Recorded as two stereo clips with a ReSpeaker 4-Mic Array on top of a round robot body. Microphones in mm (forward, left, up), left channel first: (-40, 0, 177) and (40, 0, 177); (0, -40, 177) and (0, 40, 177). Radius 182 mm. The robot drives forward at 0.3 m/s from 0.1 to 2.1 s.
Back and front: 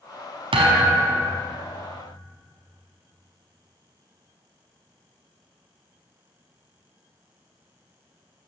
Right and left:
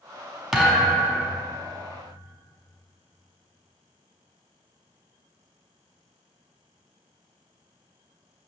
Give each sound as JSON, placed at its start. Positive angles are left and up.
{"t": 0.5, "sound": "a thud", "azimuth_deg": 5, "distance_m": 1.1}